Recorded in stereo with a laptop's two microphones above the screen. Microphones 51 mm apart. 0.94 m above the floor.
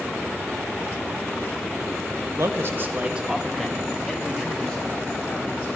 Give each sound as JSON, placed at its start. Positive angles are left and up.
{"t": 2.4, "sound": "a man speaking", "side_deg": -65, "distance_m": 0.9}